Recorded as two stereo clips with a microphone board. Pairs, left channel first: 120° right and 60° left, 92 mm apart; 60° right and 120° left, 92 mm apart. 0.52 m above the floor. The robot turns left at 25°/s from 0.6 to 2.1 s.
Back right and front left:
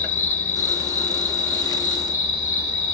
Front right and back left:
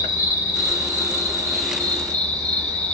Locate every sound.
0.0 s an insect: 75° right, 1.4 m; by 2.9 s 115° right, 1.4 m